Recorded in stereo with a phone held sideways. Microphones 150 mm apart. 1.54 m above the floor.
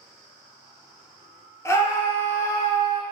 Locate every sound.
1.6 s a scream: 20° left (ahead or behind), 0.6 m